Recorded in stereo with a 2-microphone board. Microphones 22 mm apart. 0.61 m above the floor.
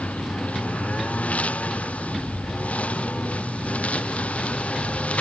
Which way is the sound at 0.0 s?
80° left.